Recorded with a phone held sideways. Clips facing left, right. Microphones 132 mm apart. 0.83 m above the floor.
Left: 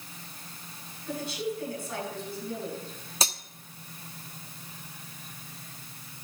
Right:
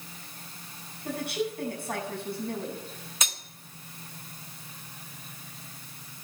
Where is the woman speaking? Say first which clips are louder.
Right 2 dB; 60° right (ahead or behind), 7 m.